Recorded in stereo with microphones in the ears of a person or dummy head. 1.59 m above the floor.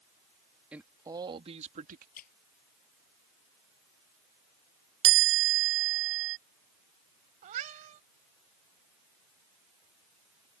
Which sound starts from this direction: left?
A squeak, at 2.2 s.